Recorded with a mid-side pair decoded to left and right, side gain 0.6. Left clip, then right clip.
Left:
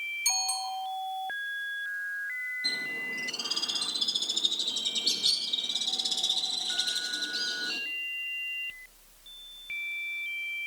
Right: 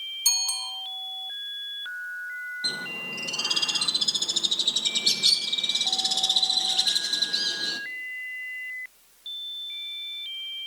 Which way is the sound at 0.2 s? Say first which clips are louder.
Right 5 dB; 65° right.